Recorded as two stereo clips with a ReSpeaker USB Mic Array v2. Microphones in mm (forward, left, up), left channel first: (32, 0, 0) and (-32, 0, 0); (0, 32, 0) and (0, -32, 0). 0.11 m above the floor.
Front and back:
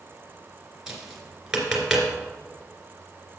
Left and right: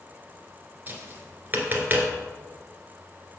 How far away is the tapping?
About 1.6 m.